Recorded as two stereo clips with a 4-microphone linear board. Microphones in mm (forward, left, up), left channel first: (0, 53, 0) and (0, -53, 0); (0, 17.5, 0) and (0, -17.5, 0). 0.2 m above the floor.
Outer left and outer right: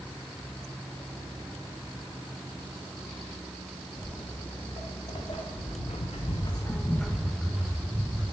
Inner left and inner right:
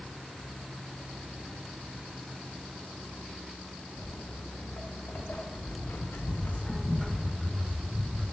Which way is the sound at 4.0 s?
55° left (ahead or behind).